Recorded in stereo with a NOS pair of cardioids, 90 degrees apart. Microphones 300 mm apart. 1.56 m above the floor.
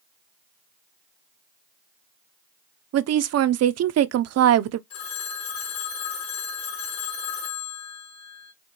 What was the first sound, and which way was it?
A woman speaking, 55° right.